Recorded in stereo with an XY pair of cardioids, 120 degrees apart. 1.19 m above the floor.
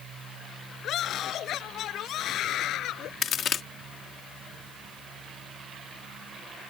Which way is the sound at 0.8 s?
60° left.